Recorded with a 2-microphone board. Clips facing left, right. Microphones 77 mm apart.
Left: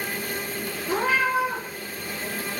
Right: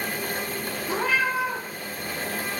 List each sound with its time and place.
0.9 s a cat meowing: 35° left (ahead or behind), 1.0 m